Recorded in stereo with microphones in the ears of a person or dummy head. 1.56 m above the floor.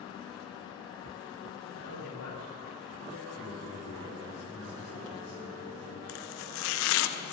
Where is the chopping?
75° left (ahead or behind), 1.2 m.